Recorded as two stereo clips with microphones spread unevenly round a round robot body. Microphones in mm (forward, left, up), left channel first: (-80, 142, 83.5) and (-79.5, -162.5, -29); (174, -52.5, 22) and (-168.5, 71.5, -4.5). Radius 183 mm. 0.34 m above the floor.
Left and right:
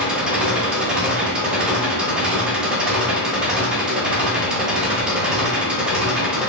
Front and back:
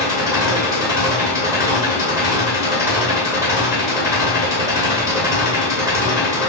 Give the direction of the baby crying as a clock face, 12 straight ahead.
No baby crying in this recording.